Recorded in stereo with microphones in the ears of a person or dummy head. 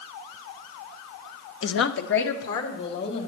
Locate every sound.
1.6 s a woman speaking: 55° left (ahead or behind), 0.6 m; by 3.3 s 60° left (ahead or behind), 2.5 m